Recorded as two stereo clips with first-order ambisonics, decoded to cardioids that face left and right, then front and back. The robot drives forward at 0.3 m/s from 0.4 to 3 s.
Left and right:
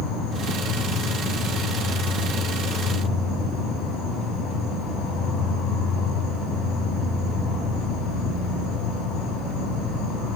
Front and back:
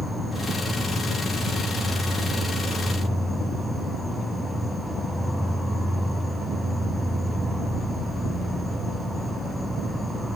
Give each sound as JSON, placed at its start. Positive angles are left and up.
{"t": 0.0, "sound": "an insect", "azimuth_deg": 85, "distance_m": 4.5}